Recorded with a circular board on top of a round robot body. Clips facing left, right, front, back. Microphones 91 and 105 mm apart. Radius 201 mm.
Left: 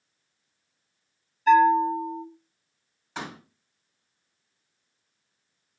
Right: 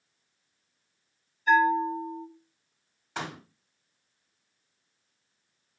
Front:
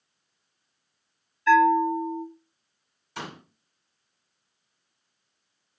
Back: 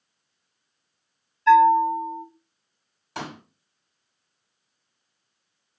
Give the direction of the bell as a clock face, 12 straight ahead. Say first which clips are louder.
Left 5 dB, back 4 dB; 8 o'clock.